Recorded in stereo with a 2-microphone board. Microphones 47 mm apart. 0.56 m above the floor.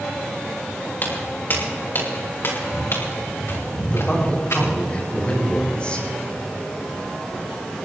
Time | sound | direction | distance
1.0 | footsteps | 40° left (ahead or behind) | 5 m
3.8 | a man speaking | 25° left (ahead or behind) | 5 m